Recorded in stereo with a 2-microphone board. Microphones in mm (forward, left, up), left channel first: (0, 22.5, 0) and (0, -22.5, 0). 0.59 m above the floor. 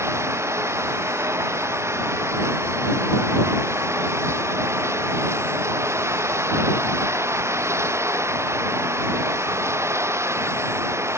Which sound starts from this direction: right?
Running water, at 0.0 s.